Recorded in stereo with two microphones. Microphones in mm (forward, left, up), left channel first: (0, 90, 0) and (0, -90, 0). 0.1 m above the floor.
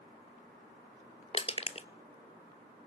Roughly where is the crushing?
Left.